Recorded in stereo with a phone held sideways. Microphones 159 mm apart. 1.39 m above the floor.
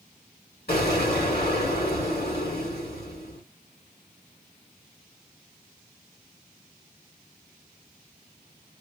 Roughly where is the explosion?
Left.